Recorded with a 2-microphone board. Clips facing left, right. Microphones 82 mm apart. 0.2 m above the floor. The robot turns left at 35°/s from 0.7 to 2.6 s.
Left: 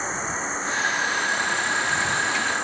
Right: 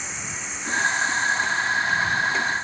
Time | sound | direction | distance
0.0 | an insect | 140° left | ?